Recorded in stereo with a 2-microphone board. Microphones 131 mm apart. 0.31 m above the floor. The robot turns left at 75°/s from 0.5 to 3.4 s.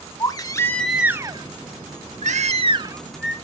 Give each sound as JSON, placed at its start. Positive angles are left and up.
{"t": 0.2, "sound": "a baby crying", "azimuth_deg": 30, "distance_m": 0.6}